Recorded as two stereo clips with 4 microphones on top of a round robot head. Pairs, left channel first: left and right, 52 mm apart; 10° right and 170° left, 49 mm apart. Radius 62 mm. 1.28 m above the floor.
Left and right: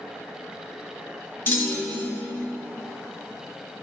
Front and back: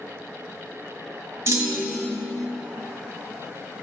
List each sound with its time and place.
1.5 s a clunk: 145° left, 1.3 m